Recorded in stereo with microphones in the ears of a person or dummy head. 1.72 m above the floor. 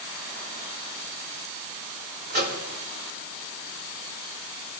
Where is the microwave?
55° right (ahead or behind), 5 m.